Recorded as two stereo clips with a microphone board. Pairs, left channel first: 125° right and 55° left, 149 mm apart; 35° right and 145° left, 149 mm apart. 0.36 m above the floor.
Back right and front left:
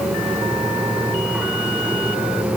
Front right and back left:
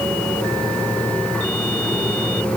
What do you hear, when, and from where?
Only background noise.